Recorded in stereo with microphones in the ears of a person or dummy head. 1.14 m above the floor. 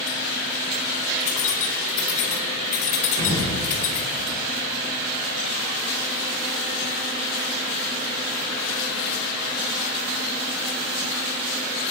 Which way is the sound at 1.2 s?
40° left (ahead or behind).